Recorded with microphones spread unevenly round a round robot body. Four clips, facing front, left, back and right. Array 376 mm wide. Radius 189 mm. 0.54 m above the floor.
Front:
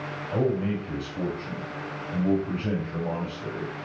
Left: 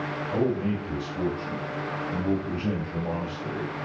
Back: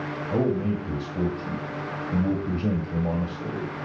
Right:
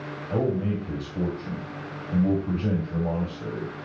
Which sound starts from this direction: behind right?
A man speaking, at 0.3 s.